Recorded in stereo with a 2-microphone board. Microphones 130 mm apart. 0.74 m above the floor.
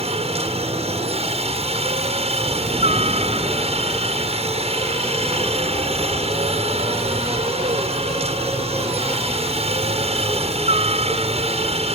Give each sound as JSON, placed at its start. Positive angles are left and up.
{"t": 0.0, "sound": "a helicopter", "side_deg": -50}